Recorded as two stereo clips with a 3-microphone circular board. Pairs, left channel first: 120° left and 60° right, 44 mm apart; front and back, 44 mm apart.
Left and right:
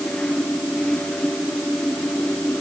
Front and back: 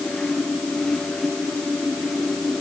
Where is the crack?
I don't hear a crack.